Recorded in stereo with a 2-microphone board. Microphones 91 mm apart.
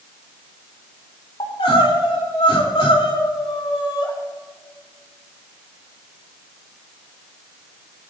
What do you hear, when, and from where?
1.4 s crying: 80° left, 3 m